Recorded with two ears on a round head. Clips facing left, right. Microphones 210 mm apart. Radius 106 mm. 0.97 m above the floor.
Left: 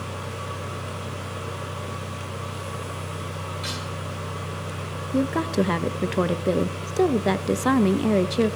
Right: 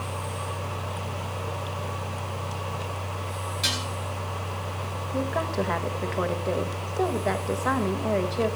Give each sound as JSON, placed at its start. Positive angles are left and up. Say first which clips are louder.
{"t": 3.6, "sound": "dishes clattering", "louder": "even", "side_deg": -65, "distance_m": 7.0}
{"t": 5.1, "sound": "a woman speaking", "louder": "left 6 dB", "side_deg": 50, "distance_m": 0.8}